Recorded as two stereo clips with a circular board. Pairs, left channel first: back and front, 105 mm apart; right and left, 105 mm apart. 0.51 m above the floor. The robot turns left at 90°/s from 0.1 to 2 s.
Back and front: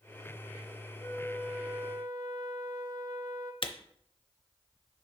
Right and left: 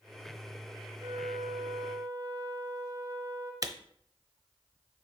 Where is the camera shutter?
145° left, 0.6 m.